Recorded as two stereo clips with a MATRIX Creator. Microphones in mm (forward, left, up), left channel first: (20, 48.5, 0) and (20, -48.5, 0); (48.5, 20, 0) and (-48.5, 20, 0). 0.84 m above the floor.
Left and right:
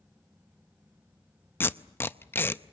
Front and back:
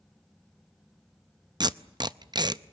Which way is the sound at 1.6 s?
150° left.